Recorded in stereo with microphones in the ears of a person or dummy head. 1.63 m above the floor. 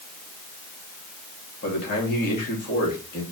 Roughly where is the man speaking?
Left.